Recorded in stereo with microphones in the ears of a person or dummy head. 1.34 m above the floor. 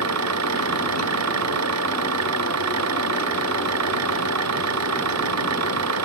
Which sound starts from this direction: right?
An engine running, at 0.0 s.